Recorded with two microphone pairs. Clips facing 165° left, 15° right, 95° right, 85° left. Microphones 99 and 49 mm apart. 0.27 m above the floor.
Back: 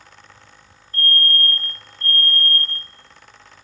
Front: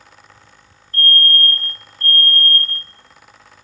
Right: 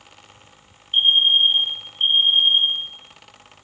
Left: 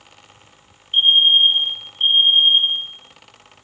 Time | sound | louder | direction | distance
0.9 | a fire alarm | front 3 dB, left 3 dB | 10° right | 4 m